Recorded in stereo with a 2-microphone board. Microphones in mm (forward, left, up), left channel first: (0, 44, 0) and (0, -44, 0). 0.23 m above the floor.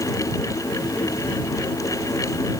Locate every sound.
Only background noise.